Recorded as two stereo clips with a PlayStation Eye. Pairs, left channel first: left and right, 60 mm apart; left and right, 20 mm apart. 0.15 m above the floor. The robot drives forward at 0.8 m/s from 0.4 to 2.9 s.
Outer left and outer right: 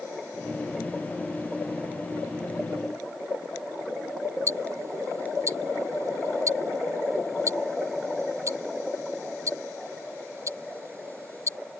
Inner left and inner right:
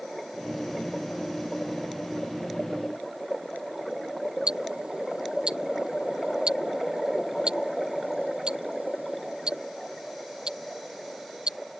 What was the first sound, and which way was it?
Ticking, 55° right (ahead or behind).